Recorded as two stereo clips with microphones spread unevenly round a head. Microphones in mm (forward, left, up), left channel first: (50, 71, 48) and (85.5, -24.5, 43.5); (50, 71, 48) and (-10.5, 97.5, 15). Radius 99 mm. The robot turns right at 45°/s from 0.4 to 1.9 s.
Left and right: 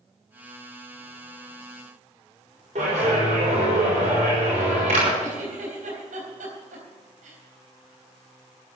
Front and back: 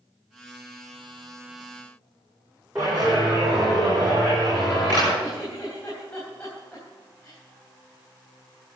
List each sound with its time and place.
2.8 s a clap: 120° right, 6 m
5.2 s a giggle: 95° right, 4 m